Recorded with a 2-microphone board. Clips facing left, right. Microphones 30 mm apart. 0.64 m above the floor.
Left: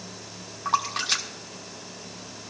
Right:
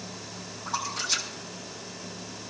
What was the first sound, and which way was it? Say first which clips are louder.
A splash: left 5 dB; 65° left (ahead or behind).